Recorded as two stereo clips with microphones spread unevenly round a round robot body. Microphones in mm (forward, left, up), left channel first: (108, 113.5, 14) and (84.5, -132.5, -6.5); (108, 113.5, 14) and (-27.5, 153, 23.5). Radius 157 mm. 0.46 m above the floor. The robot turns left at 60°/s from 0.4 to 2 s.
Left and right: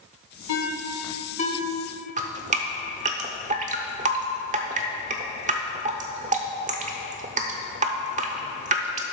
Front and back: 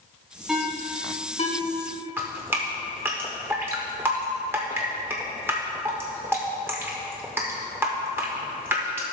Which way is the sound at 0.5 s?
80° left.